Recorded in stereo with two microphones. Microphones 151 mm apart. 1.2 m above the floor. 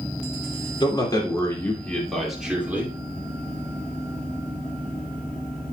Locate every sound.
0.8 s a man speaking: 30° left (ahead or behind), 2.5 m; by 3.0 s 15° right (ahead or behind), 2.5 m